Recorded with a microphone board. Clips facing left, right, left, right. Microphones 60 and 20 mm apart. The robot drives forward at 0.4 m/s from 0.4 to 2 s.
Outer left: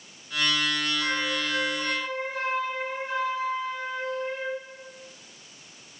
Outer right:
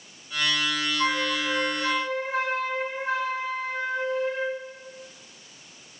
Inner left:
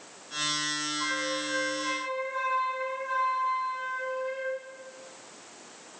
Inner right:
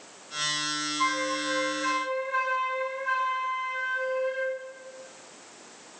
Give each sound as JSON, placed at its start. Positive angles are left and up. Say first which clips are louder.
{"t": 1.0, "sound": "a flute", "louder": "outer right 3 dB, inner right 3 dB", "side_deg": -80, "distance_m": 1.3}